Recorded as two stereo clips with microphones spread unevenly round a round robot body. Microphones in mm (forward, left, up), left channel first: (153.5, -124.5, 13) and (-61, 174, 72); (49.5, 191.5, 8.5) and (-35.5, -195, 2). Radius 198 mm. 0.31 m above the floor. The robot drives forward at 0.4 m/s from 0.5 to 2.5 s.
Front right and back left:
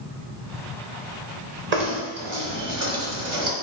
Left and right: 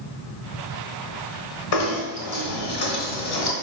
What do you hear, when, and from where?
1.7 s knocking: 70° left, 1.3 m; by 3.5 s 90° left, 1.3 m